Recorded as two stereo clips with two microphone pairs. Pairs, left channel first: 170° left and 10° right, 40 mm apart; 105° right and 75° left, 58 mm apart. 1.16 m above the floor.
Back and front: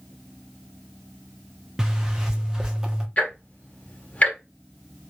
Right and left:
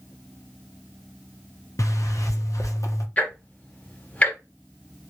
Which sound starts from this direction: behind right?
Ticking, at 3.2 s.